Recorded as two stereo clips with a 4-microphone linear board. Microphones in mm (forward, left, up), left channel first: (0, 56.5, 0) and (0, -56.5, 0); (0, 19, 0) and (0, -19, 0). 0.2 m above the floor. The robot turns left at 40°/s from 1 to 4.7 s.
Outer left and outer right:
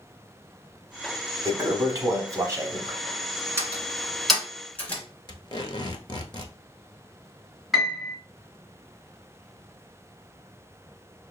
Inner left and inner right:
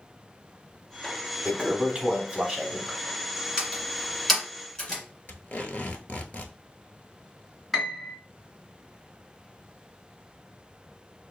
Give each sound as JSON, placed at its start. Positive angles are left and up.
{"t": 1.4, "sound": "a toilet flushing", "azimuth_deg": -70, "distance_m": 0.9}
{"t": 3.6, "sound": "a door slam", "side_deg": -25, "distance_m": 1.6}
{"t": 5.3, "sound": "tape being pulled", "side_deg": 45, "distance_m": 0.7}
{"t": 7.7, "sound": "a piano", "side_deg": 0, "distance_m": 1.6}